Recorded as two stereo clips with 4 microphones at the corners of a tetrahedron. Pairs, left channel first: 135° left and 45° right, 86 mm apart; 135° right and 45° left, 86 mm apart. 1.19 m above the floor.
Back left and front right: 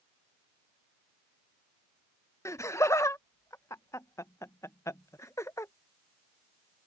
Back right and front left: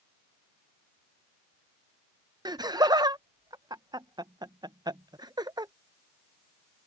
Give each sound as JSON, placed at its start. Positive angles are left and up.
{"t": 2.5, "sound": "laughter", "azimuth_deg": 80}